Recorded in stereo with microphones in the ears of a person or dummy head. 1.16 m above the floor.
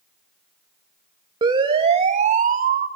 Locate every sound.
1.4 s a siren: 25° right (ahead or behind), 2.5 m; by 2.9 s 50° right (ahead or behind), 2 m